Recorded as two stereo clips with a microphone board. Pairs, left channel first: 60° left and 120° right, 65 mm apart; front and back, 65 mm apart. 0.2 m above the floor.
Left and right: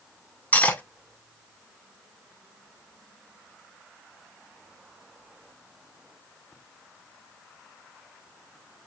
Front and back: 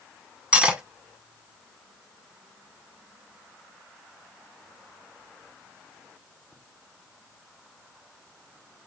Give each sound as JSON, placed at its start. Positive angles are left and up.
{"t": 0.5, "sound": "cutlery clinking", "azimuth_deg": 115, "distance_m": 0.8}